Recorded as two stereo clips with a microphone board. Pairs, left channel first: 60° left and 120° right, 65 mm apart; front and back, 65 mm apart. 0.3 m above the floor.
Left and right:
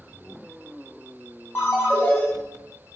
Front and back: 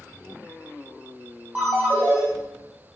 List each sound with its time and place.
1.6 s a ringtone: 115° left, 1.3 m